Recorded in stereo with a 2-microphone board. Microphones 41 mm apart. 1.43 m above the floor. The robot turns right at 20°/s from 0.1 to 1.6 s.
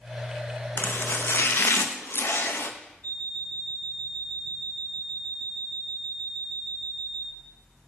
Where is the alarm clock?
70° left (ahead or behind), 2.5 m.